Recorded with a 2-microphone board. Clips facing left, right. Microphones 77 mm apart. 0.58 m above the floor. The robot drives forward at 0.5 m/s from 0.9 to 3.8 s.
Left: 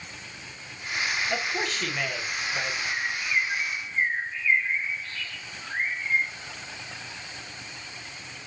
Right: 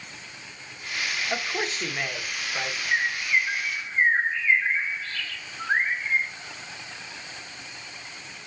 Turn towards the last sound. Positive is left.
turn(degrees=-80)